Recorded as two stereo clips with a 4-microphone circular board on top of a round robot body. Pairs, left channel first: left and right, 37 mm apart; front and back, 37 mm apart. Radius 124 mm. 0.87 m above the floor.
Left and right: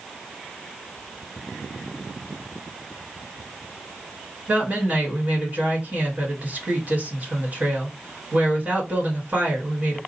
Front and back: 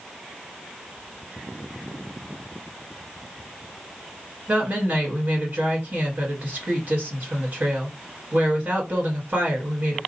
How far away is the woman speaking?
About 2.0 m.